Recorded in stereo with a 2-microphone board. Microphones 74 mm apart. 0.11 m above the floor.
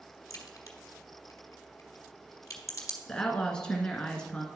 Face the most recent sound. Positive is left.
turn(degrees=10)  # may be behind; listen again after turning